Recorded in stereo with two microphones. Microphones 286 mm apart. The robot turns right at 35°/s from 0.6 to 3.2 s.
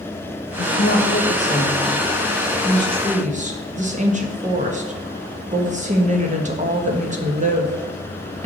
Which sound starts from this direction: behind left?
A woman speaking, at 0.6 s.